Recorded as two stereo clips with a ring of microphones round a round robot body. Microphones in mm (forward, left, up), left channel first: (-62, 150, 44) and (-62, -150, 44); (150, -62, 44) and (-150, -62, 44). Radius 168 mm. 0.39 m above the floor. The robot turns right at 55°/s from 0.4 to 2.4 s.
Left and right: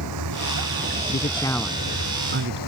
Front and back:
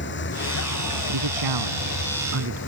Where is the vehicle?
50° right; by 2.7 s 60° left.